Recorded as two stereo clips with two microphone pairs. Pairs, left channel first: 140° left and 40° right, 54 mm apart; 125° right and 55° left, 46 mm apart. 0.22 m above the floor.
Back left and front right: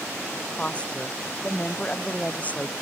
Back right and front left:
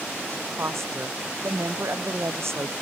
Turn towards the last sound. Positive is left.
turn(degrees=80)